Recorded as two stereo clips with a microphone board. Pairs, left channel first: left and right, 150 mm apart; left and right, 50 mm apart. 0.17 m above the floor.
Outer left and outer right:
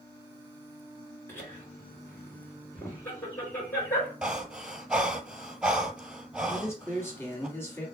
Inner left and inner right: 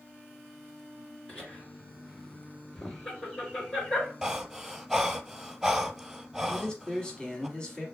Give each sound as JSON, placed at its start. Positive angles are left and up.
{"t": 1.3, "sound": "laughter", "side_deg": 15, "distance_m": 3.0}
{"t": 4.2, "sound": "breathing", "side_deg": -5, "distance_m": 0.8}
{"t": 6.5, "sound": "a man speaking", "side_deg": 15, "distance_m": 1.1}